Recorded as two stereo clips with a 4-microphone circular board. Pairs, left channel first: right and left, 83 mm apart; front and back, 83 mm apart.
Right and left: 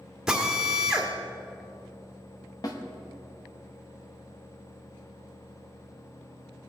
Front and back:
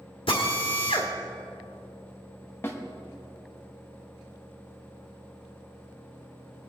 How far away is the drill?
About 1.7 m.